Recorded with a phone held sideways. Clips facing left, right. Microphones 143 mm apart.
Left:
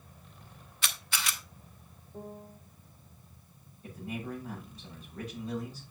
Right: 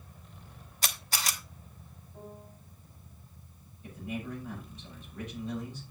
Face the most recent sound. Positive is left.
turn(degrees=40)  # may be behind; listen again after turning